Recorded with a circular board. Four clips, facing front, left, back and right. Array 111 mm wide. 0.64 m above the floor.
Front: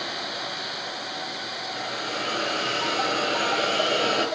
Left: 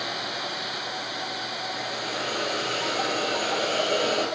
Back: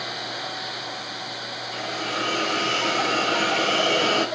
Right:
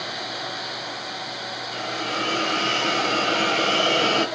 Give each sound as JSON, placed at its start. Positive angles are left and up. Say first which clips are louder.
{"t": 1.7, "sound": "a hiss", "louder": "right 6 dB, back 3 dB", "azimuth_deg": -130, "distance_m": 3.0}